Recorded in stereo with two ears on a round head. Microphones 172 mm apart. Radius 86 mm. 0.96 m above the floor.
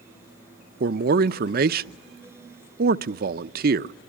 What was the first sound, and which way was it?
A man speaking, 50° right (ahead or behind).